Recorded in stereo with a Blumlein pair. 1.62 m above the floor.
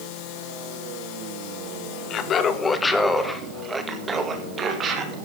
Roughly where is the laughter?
Ahead left.